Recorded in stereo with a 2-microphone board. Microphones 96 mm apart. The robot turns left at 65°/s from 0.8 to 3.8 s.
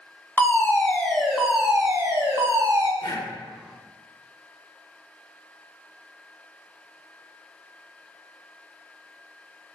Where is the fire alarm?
35° left, 1.8 m; by 2.9 s 100° right, 1.8 m.